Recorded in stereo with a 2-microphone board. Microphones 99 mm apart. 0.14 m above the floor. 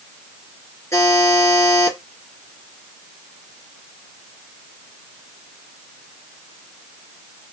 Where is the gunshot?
No gunshot in this recording.